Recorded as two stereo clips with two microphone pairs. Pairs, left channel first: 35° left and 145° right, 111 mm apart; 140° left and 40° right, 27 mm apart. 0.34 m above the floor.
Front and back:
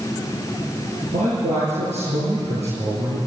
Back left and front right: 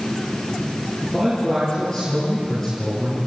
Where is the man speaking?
150° right, 8 m.